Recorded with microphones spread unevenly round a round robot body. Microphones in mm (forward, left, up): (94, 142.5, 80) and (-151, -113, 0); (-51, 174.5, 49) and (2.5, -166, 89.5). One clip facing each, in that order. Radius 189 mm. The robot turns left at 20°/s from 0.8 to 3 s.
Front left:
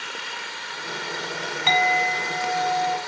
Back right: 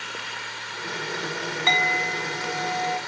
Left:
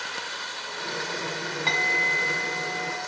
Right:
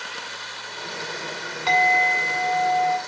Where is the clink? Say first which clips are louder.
Front left 6 dB, right 7 dB; 10° right, 2.5 m; by 3.0 s 35° right, 2.5 m.